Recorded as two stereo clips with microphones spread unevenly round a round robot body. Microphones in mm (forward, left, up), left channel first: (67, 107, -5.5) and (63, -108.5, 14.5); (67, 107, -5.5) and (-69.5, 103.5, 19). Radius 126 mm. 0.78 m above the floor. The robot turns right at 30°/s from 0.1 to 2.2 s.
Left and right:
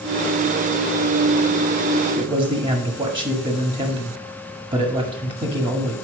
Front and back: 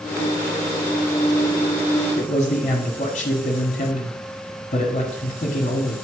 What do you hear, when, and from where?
2.1 s a man speaking: 40° right, 1.6 m; by 6.0 s 35° right, 1.6 m